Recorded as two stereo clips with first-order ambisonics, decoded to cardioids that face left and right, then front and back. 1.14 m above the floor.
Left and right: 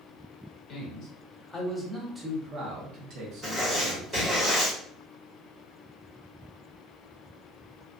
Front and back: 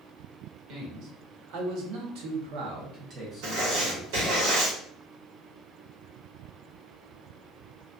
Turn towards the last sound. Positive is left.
turn(degrees=-170)